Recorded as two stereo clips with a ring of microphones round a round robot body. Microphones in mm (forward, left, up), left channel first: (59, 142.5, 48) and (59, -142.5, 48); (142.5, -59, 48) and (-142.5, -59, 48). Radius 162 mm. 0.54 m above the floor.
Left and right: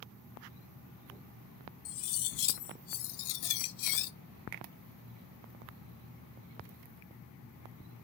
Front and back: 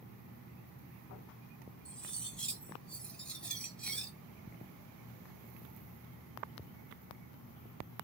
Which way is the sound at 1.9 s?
85° left.